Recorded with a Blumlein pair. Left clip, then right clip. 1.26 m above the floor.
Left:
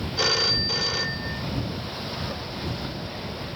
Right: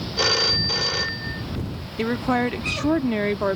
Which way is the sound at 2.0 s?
50° right.